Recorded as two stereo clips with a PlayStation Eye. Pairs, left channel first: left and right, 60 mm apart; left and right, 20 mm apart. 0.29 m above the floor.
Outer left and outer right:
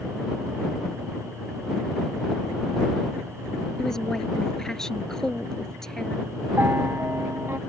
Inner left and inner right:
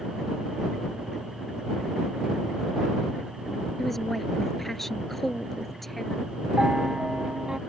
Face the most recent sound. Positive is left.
turn(degrees=-45)  # may be behind; listen again after turning